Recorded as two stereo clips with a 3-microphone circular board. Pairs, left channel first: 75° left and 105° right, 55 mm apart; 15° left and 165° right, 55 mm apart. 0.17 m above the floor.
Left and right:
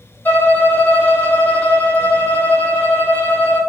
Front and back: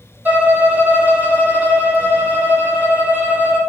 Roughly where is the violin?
Behind left.